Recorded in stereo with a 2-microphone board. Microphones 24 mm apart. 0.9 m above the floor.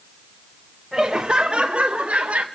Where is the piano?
No piano in this recording.